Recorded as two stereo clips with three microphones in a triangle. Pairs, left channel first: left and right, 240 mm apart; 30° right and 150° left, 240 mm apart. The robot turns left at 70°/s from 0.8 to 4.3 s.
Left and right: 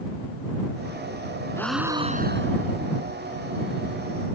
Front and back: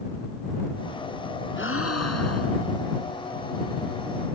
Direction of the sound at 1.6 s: 10° left.